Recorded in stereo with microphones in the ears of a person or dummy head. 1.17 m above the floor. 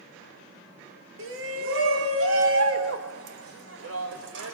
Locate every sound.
1.2 s a shout: 75° right (ahead or behind), 3 m; by 4.5 s 80° right, 6 m